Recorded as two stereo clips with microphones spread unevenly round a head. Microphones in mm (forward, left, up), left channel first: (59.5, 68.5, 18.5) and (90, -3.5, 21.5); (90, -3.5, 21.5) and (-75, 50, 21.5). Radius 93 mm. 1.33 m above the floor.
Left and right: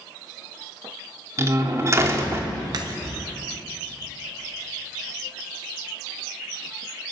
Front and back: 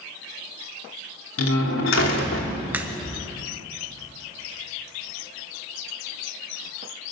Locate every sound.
1.4 s a door slam: 15° right, 3 m
2.7 s a crack: 120° right, 1.0 m